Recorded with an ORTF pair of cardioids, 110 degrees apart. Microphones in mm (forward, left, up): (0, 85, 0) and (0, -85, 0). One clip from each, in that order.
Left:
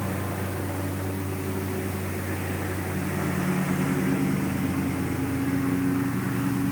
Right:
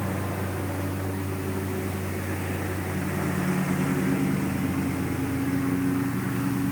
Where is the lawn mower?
15° right; by 6.7 s 5° left.